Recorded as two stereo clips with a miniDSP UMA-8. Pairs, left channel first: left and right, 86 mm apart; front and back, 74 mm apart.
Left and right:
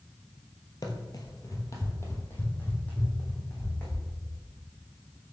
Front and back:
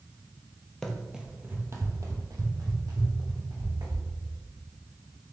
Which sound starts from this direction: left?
Running footsteps, at 0.8 s.